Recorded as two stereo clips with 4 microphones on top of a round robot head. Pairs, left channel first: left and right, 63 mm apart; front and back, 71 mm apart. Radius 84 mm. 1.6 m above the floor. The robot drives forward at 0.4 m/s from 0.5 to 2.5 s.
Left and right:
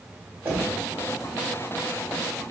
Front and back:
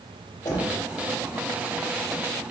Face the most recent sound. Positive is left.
turn(degrees=-65)